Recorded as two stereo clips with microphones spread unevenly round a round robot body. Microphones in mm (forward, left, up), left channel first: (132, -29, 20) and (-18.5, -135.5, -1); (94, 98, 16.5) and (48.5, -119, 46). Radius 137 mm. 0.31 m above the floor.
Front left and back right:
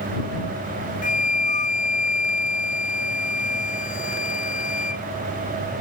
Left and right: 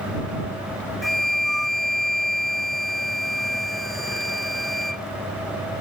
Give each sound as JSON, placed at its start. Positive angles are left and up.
{"t": 1.0, "sound": "a flute", "azimuth_deg": -10}